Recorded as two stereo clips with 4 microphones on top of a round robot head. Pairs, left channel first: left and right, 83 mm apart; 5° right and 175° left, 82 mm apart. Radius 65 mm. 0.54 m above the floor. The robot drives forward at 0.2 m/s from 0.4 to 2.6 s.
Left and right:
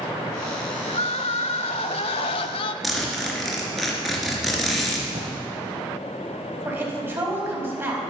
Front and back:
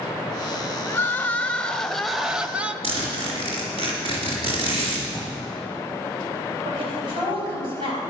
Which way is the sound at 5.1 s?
80° right.